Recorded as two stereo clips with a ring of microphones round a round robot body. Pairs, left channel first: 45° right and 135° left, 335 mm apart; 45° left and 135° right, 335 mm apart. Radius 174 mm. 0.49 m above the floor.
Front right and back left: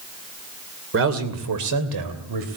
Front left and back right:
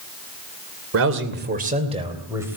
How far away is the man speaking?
About 2.5 m.